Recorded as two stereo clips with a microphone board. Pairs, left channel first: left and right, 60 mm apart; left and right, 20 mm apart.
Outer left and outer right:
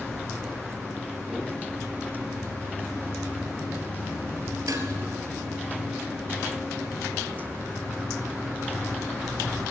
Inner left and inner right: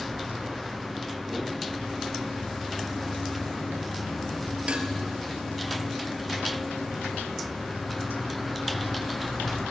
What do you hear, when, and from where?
4.7 s dishes clattering: 70° right (ahead or behind), 3 m